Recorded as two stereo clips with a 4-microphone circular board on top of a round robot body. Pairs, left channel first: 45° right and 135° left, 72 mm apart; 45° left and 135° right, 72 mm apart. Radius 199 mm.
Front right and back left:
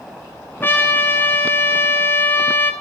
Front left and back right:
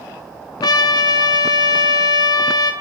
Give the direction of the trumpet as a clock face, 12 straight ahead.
11 o'clock.